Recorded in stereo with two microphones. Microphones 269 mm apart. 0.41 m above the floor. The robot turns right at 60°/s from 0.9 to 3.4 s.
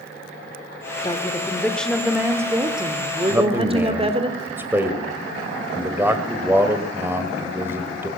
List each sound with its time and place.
1.0 s a woman speaking: 15° left (ahead or behind), 1.3 m; by 4.3 s 20° right (ahead or behind), 1.3 m
3.3 s a man speaking: 10° right (ahead or behind), 1.8 m